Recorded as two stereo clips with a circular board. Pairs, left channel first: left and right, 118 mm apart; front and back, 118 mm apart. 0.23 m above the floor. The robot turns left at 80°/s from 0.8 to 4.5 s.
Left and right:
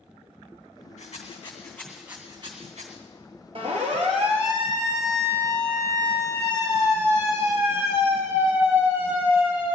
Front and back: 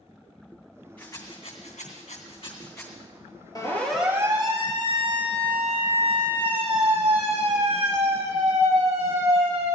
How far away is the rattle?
About 3 m.